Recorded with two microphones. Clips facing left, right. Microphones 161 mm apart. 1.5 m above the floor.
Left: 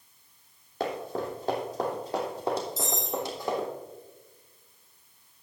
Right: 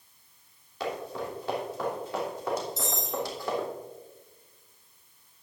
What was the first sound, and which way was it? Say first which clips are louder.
Running footsteps: left 2 dB; 55° left (ahead or behind).